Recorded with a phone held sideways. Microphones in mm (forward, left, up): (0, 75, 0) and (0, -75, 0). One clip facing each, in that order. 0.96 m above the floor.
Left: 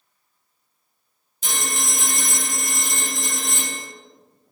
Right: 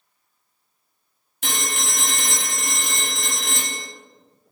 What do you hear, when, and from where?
1.4 s a phone ringing: 65° right (ahead or behind), 0.8 m